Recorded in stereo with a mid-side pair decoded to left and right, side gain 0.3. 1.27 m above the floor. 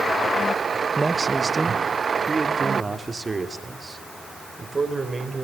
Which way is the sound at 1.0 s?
25° right.